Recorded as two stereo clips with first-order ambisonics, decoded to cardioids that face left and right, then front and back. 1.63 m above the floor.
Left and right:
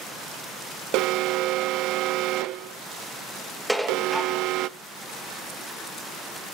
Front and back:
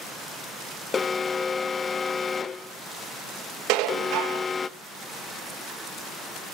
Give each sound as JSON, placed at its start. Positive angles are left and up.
{"t": 0.9, "sound": "an alarm", "azimuth_deg": -70, "distance_m": 0.5}
{"t": 3.7, "sound": "dishes clattering", "azimuth_deg": 180, "distance_m": 1.4}